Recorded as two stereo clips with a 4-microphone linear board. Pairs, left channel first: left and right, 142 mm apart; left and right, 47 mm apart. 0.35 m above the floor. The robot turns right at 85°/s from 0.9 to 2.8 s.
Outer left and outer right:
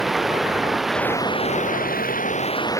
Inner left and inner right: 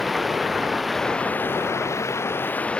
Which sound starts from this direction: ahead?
Running water, at 0.0 s.